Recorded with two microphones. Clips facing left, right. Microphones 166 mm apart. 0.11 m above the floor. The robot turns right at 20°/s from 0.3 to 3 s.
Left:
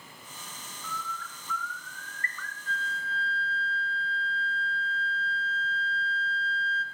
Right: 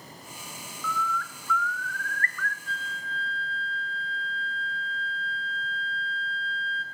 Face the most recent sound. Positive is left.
turn(degrees=45)  # may be behind; listen again after turning